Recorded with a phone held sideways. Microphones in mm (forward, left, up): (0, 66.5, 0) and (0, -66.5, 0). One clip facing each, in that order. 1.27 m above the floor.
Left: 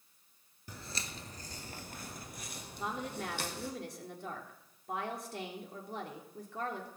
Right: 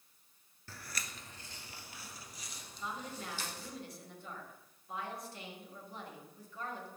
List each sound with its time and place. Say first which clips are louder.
0.7 s footsteps: left 3 dB; 20° left (ahead or behind), 1.3 m; by 3.7 s 70° left (ahead or behind), 3.5 m
2.8 s a woman speaking: left 5 dB; 85° left, 3 m